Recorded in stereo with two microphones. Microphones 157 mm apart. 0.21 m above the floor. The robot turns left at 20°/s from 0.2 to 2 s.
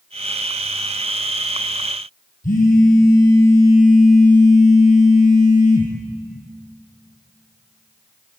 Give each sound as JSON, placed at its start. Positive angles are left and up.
{"t": 2.4, "sound": "a phone buzzing", "side_deg": 60, "distance_m": 3.0}